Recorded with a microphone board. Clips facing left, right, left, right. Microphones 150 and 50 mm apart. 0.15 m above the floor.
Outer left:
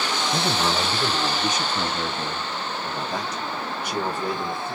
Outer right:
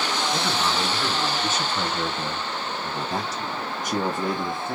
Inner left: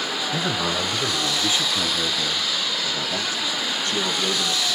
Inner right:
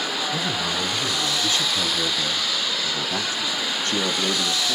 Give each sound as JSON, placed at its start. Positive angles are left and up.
{"t": 0.3, "sound": "a man speaking", "side_deg": 35, "distance_m": 1.4}